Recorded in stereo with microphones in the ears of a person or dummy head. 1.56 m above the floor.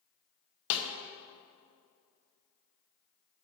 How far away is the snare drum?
About 0.9 m.